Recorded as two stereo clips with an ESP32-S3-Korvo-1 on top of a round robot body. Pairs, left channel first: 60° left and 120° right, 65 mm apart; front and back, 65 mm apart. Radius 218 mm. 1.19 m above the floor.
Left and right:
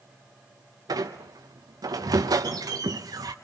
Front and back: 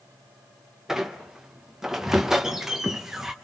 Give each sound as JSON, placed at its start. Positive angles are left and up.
{"t": 0.9, "sound": "a squeak", "azimuth_deg": -95, "distance_m": 0.6}